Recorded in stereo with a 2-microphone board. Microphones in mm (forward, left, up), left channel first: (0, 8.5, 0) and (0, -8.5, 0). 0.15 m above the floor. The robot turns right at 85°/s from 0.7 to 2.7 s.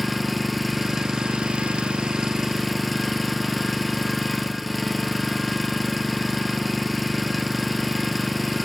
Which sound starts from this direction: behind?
An engine running, at 0.0 s.